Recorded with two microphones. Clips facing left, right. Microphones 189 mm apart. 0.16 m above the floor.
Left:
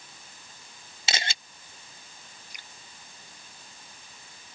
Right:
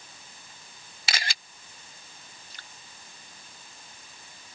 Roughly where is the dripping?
Centre.